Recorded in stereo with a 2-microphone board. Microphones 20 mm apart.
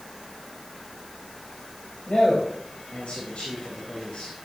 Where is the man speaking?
85° left, 4 m.